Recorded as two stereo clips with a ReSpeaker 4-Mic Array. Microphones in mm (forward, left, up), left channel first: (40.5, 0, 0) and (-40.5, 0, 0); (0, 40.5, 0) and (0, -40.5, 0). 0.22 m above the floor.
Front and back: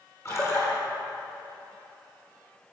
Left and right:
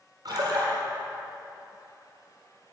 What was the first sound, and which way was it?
A splash, 55° right.